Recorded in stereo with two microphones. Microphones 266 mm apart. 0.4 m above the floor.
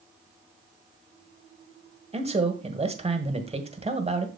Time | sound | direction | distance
2.1 | a man speaking | 25° right (ahead or behind) | 1.5 m